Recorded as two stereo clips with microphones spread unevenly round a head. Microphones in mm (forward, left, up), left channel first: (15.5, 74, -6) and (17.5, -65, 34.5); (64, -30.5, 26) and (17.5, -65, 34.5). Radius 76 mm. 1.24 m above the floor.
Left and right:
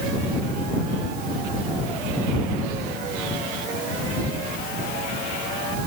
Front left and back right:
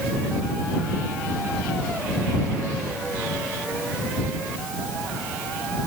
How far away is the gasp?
No gasp in this recording.